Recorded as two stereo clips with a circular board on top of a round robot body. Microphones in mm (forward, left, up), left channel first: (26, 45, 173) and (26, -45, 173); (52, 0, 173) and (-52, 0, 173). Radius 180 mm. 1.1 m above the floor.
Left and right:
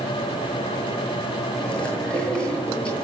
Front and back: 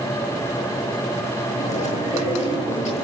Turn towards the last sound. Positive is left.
turn(degrees=10)